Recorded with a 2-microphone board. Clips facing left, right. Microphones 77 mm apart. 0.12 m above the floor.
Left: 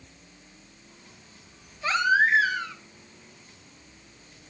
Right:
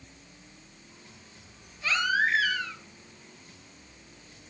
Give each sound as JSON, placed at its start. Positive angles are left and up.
{"t": 1.8, "sound": "a baby crying", "side_deg": 30, "distance_m": 2.5}